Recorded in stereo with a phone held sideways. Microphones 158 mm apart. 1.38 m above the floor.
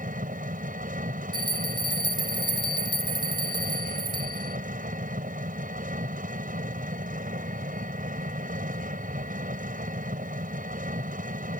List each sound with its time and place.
0.0 s an engine running: 60° right (ahead or behind)
1.3 s a bell: 30° right (ahead or behind)